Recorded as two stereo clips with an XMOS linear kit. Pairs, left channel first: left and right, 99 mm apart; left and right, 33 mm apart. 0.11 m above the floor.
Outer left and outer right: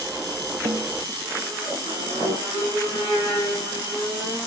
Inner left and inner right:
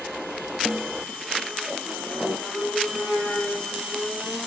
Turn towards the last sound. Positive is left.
turn(degrees=-60)  # may be behind; listen again after turning